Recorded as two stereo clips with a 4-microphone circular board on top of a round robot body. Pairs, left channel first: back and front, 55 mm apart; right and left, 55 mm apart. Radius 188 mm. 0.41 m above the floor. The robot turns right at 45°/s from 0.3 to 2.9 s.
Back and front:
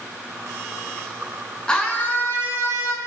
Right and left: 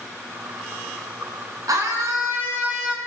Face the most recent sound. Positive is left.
turn(degrees=160)